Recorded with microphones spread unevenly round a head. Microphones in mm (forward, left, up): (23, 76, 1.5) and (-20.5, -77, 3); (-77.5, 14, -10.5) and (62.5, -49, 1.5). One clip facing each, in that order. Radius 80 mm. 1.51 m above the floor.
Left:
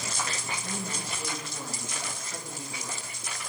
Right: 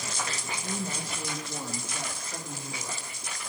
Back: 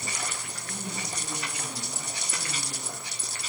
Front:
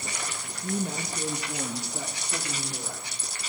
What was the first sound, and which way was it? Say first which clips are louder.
A woman speaking: right 2 dB, front 10 dB; 30° right.